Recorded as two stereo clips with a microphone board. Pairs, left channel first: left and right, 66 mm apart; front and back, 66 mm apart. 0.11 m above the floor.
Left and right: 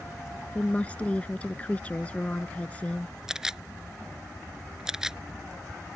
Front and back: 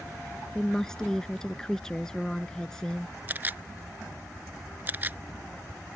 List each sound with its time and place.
0.6 s a woman speaking: 65° left
3.3 s a camera shutter: 160° right